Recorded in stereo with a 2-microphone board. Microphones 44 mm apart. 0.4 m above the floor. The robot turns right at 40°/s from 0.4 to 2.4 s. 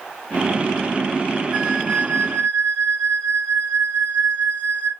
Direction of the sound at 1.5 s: 20° right.